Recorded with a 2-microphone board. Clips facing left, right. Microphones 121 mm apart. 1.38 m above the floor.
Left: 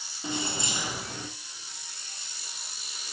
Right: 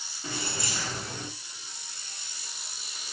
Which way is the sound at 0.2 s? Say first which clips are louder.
Left 3 dB; 20° left (ahead or behind).